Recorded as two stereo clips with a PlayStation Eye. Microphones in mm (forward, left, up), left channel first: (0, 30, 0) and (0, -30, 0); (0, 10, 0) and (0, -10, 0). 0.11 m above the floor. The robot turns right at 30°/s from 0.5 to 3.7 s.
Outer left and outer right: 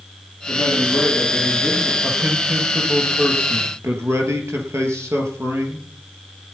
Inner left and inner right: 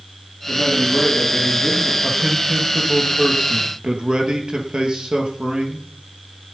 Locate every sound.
0.5 s a man speaking: 150° left, 5 m; by 1.9 s 170° right, 5 m
2.0 s a man speaking: 165° right, 2.5 m; by 5.9 s 115° right, 2.5 m